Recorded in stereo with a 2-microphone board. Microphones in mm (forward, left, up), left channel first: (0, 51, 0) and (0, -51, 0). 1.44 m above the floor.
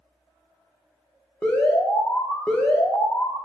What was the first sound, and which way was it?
An alarm, 10° left (ahead or behind).